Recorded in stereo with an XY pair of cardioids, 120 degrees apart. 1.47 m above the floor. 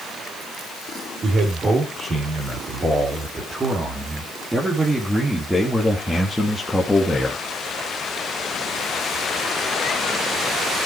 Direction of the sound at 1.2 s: 35° right.